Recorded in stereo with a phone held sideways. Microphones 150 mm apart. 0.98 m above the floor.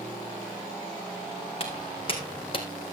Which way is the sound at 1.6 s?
40° left (ahead or behind).